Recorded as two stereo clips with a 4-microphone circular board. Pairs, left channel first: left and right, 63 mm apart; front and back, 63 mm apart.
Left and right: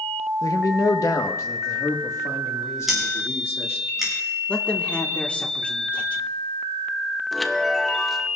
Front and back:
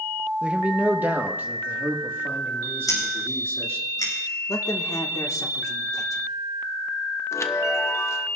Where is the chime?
Straight ahead, 0.8 m.